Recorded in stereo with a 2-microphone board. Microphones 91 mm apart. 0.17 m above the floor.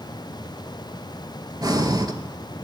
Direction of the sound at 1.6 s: 45° right (ahead or behind).